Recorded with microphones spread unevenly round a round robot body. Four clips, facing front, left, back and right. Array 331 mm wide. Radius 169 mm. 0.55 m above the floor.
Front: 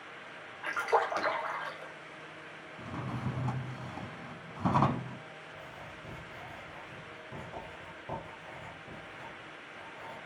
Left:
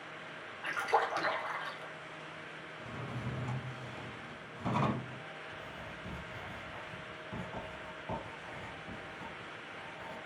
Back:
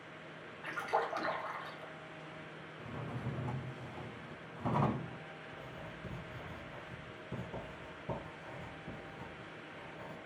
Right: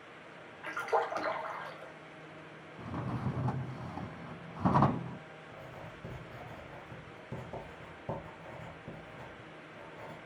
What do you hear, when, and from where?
0.6 s a splash: 10° right, 2.5 m
2.8 s a drawer: 45° right, 1.1 m
5.5 s writing: 115° right, 4 m